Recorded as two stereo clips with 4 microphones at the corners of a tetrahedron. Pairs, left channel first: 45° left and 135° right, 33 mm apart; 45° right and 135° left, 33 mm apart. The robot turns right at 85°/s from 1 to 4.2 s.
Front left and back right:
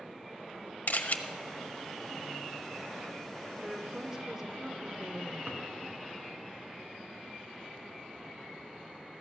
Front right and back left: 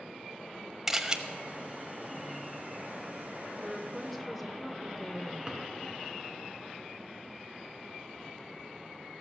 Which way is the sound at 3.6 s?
Straight behind.